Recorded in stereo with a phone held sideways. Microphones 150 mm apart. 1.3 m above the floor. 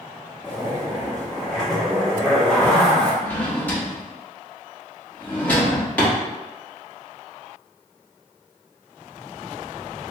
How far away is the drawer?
About 0.9 m.